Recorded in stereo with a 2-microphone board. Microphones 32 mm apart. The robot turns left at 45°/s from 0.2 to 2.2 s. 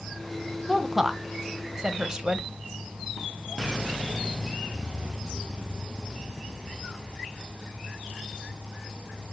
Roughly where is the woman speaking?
Centre.